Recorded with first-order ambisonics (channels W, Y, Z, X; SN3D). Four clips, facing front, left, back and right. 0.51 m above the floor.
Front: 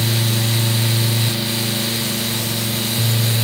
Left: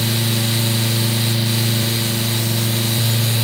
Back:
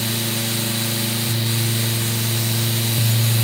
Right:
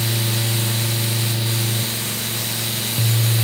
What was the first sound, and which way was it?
Only background noise.